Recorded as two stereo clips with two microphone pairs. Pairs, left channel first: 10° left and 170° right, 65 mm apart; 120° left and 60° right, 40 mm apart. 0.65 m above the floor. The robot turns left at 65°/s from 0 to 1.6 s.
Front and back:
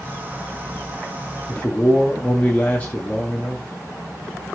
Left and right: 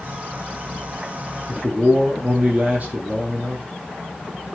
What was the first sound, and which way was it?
A man speaking, 35° right.